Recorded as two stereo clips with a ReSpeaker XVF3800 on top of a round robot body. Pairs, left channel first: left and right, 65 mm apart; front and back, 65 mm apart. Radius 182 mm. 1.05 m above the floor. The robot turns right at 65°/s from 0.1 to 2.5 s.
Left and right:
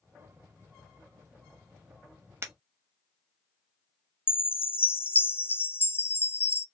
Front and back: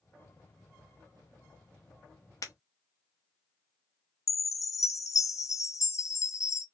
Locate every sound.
2.4 s breaking glass: 40° right, 1.4 m; by 2.5 s 35° right, 1.4 m
4.3 s a chime: 35° left, 0.7 m